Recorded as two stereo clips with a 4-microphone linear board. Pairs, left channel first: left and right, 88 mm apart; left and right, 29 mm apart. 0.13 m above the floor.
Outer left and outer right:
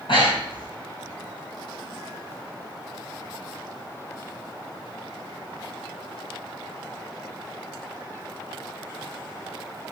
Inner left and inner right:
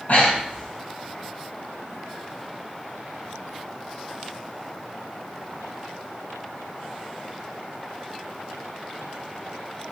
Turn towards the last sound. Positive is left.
turn(degrees=75)  # may be behind; listen again after turning